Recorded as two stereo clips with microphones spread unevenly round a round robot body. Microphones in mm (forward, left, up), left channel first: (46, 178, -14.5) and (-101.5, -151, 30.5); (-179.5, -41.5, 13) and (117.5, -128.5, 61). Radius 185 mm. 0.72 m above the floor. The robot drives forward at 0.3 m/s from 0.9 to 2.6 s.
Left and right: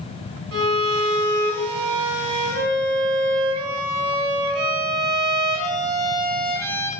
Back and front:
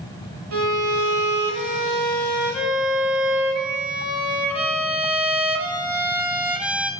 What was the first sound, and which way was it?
A violin, 65° right.